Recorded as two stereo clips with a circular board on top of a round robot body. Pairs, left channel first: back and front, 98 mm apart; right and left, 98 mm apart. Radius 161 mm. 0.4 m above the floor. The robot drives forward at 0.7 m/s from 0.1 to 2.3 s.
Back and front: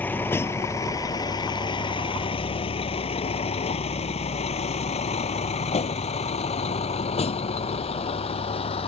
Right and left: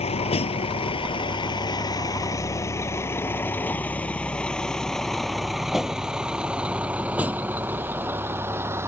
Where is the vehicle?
105° right; by 8.9 s 155° left.